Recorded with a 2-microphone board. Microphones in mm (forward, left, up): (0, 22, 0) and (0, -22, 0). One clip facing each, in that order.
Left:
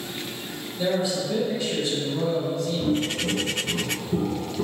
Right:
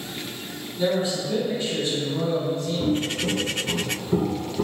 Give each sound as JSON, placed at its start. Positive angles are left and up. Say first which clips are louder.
{"t": 0.8, "sound": "a man speaking", "louder": "right 1 dB", "side_deg": -35, "distance_m": 1.9}
{"t": 2.8, "sound": "footsteps", "louder": "right 1 dB", "side_deg": -60, "distance_m": 0.9}